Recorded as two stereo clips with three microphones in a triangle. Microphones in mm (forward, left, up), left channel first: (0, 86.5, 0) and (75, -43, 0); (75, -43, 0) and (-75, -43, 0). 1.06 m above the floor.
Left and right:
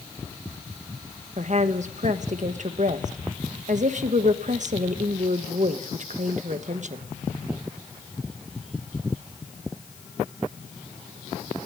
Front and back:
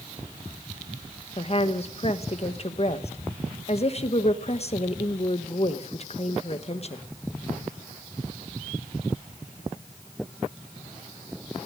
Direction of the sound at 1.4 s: 35° right.